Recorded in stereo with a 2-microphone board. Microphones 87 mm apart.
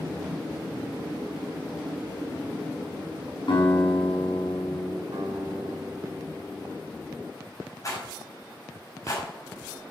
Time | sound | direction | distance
3.5 | a guitar | 75° left (ahead or behind) | 6 m
5.1 | a guitar | 70° right (ahead or behind) | 3.5 m
7.8 | a rattle | 40° left (ahead or behind) | 5.5 m